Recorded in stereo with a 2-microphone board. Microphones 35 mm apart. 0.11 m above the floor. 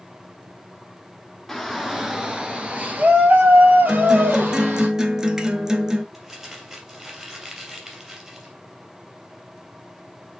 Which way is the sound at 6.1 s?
15° right (ahead or behind).